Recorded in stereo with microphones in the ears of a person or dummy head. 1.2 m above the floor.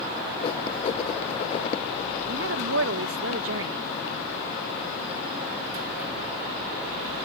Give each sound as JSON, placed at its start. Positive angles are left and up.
{"t": 0.4, "sound": "writing", "side_deg": 30}
{"t": 2.3, "sound": "a woman speaking", "side_deg": -65}